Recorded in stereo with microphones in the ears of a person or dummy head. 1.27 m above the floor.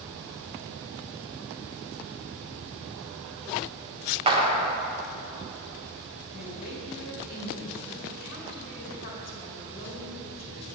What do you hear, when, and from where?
4.3 s a clap: 25° right (ahead or behind), 0.6 m
6.3 s a woman speaking: 45° left (ahead or behind), 1.9 m